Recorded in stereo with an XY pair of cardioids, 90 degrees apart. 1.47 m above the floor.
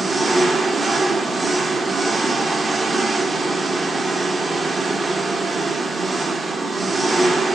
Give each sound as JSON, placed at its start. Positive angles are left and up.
{"t": 0.0, "sound": "an engine running", "azimuth_deg": -30, "distance_m": 1.1}